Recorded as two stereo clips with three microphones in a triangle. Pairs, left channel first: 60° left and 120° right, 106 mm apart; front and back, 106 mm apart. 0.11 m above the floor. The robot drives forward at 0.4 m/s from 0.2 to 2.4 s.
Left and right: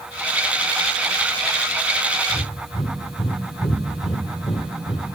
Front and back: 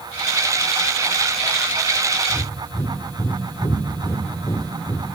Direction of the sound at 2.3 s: 55° left.